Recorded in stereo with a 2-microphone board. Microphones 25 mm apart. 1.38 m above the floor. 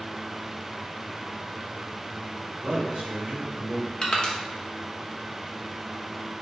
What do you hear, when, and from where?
2.6 s a man speaking: 35° right (ahead or behind), 1.6 m
4.0 s crushing: 30° left (ahead or behind), 0.8 m